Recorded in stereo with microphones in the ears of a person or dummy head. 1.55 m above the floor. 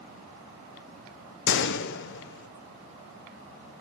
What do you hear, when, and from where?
1.5 s a gunshot: 65° left (ahead or behind), 1.0 m